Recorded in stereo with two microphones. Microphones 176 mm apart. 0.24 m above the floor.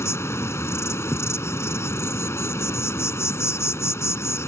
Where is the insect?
15° left (ahead or behind).